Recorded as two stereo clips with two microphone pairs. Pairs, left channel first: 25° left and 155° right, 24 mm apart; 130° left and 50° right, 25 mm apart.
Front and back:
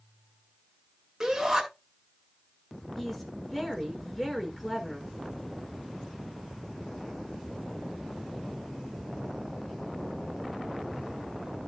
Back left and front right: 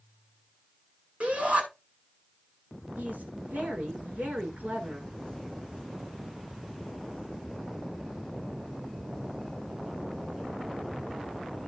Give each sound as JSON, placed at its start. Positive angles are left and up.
{"t": 1.2, "sound": "a shout", "azimuth_deg": -85, "distance_m": 8.0}
{"t": 3.0, "sound": "a woman speaking", "azimuth_deg": -60, "distance_m": 7.0}